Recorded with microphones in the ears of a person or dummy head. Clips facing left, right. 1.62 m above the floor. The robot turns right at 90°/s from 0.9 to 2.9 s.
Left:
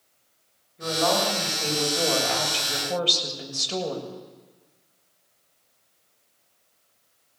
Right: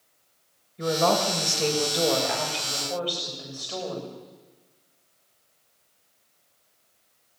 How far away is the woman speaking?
About 6.5 m.